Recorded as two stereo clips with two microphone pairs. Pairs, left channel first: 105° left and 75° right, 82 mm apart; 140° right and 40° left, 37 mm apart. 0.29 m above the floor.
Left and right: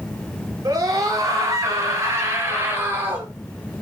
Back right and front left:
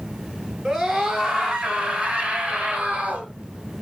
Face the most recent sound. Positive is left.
turn(degrees=-15)